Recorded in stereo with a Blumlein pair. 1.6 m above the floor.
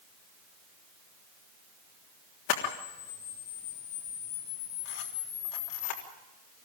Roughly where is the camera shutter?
Ahead left.